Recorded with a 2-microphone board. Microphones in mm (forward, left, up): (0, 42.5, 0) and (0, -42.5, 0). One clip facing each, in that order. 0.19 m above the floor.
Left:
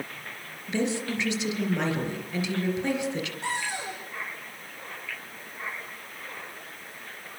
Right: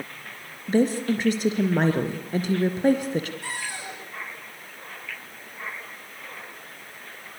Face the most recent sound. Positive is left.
turn(degrees=20)  # may be behind; listen again after turning